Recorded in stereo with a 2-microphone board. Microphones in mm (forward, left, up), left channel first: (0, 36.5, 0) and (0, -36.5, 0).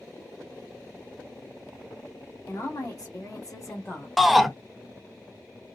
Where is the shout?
Centre (ahead or behind), 0.7 m.